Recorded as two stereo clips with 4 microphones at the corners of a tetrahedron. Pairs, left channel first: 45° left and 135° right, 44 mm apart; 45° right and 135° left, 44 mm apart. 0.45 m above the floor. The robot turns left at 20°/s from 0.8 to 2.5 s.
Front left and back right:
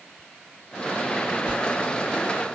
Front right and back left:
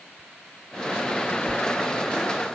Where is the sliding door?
35° left, 0.8 m; by 1.6 s 30° left, 0.8 m.